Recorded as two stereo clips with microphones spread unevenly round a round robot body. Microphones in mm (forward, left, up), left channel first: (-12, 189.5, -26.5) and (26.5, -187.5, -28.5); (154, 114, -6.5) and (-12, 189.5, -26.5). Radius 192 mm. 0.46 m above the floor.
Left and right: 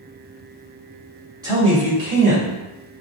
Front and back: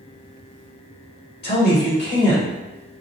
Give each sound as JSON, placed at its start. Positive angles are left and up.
{"t": 1.4, "sound": "a man speaking", "azimuth_deg": -5, "distance_m": 1.5}